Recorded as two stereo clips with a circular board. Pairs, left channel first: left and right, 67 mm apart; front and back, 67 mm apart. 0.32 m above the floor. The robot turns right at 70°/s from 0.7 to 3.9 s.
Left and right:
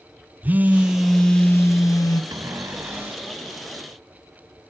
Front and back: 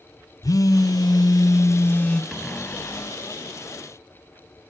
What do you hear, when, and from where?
0.4 s a phone buzzing: 25° right, 0.6 m; by 2.2 s 80° left, 0.6 m
2.3 s a cupboard door: 80° right, 1.2 m; by 3.4 s 10° right, 1.2 m